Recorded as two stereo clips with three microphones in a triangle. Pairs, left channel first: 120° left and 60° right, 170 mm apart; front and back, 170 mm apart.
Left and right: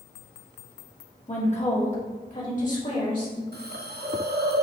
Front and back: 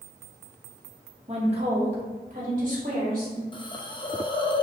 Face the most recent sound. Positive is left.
turn(degrees=-65)